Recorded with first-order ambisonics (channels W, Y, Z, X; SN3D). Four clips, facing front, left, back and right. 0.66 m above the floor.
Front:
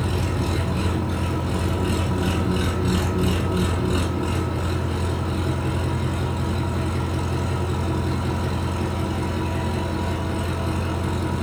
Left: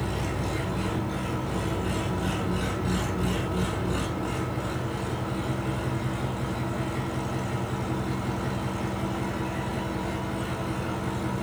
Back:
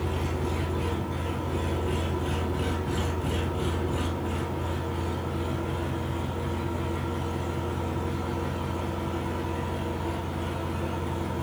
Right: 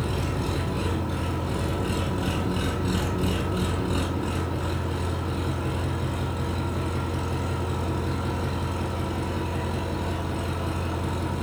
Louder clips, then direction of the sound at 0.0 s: Right 1 dB, front 5 dB; 15° right.